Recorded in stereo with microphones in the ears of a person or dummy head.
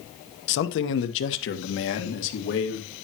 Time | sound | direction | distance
0.5 | a man speaking | 65° left (ahead or behind) | 1.3 m